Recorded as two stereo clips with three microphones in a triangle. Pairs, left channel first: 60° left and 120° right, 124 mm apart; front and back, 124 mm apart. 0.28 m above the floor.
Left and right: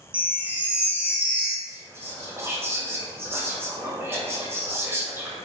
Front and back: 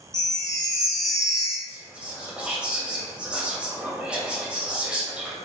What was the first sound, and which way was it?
A chime, 45° right.